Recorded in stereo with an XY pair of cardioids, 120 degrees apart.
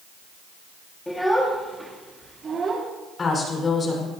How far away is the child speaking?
About 1.9 m.